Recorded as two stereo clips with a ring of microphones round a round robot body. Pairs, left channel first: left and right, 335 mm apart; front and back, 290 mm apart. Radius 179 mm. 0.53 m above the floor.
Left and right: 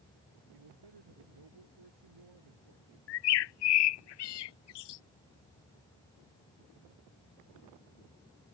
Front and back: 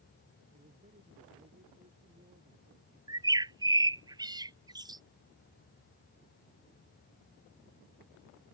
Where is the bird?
105° left.